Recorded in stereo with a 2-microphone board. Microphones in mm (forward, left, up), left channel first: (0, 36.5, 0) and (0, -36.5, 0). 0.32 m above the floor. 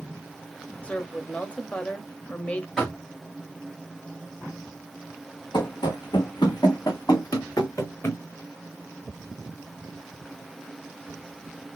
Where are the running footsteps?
80° left, 1.7 m; by 8.2 s 35° left (ahead or behind), 2.0 m.